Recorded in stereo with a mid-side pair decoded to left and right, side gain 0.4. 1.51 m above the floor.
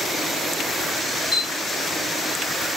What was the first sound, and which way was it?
A camera shutter, 35° left.